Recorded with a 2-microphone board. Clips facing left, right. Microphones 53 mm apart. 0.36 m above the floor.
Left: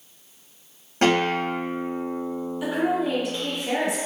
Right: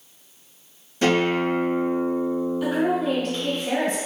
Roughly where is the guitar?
Left.